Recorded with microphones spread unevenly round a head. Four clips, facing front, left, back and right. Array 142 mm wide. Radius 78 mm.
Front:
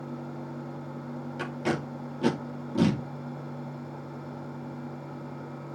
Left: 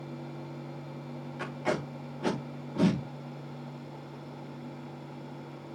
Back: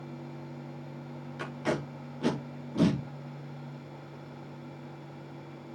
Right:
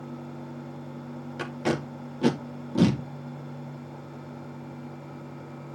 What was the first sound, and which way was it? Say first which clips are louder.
Tape being pulled: right 3 dB, front 2 dB; 70° right.